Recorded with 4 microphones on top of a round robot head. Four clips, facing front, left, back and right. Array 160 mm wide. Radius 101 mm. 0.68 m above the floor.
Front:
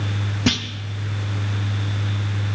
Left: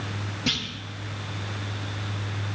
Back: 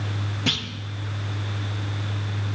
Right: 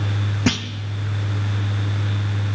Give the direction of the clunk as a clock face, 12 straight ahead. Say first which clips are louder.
Right 10 dB, front 8 dB; 2 o'clock.